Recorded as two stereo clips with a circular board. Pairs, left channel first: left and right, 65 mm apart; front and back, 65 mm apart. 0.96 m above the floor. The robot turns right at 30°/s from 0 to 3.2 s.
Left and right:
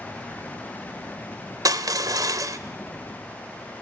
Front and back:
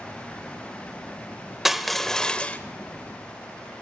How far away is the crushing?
About 1.2 m.